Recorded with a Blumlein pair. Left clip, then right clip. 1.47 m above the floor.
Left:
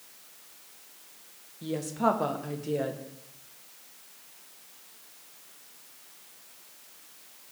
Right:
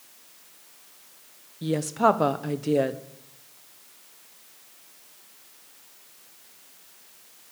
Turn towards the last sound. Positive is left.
turn(degrees=-20)